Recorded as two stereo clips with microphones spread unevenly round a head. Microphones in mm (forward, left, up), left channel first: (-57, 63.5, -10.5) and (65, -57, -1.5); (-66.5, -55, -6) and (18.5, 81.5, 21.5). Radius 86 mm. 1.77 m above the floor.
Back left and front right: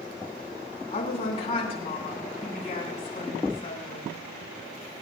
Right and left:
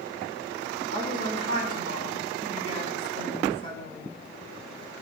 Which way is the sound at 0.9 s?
80° left.